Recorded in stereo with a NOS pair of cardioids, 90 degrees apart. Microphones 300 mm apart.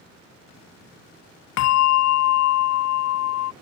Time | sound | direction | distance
1.6 | a bell | 65° left | ?